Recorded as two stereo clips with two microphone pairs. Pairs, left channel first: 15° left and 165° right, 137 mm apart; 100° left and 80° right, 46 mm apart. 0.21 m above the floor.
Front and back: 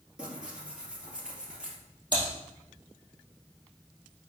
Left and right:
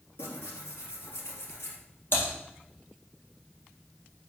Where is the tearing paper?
110° left, 2.5 m.